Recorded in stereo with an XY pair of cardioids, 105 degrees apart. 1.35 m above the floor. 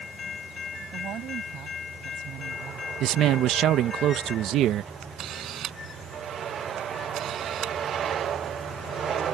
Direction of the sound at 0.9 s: 65° right.